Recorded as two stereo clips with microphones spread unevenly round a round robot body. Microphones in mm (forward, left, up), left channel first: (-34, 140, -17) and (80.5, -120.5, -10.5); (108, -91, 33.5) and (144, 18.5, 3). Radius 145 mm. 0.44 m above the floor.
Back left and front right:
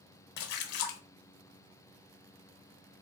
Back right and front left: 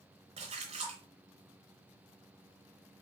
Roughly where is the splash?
Left.